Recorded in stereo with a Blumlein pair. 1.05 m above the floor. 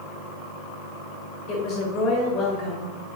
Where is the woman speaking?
30° left, 3.5 m.